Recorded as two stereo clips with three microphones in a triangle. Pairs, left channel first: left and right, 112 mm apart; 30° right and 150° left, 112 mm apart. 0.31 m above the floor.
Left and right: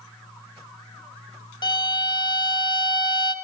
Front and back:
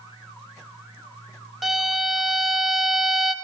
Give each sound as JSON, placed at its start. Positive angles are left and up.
{"t": 1.6, "sound": "a violin", "azimuth_deg": 60, "distance_m": 0.6}